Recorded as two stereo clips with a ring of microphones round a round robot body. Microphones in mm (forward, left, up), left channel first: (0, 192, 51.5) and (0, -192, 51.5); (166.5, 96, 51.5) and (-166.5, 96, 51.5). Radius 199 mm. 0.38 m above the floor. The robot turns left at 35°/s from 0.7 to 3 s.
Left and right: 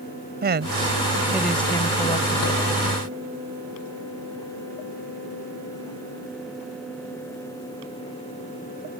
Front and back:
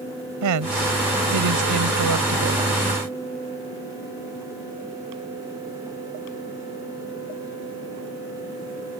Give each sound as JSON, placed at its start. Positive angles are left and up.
{"t": 0.4, "sound": "a woman speaking", "azimuth_deg": -150}